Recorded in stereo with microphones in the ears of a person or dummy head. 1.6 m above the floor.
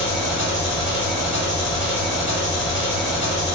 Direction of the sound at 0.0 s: 5° right (ahead or behind).